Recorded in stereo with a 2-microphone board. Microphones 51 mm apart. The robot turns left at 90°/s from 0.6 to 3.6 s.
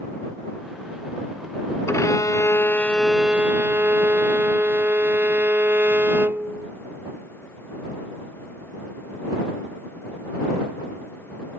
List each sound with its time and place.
1.9 s a violin: 115° left; by 6.7 s 40° right